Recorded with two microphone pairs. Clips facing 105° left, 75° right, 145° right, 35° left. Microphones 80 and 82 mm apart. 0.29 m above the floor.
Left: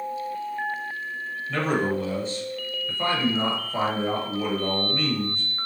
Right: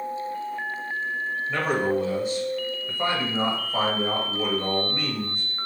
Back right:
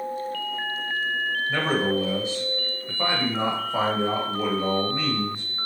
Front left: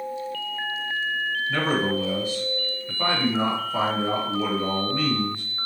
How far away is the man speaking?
About 1.1 m.